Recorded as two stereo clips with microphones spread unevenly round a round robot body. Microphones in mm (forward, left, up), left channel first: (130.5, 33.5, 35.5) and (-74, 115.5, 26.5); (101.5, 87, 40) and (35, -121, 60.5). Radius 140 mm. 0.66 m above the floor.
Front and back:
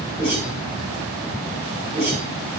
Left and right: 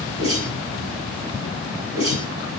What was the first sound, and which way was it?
A whoosh, 115° right.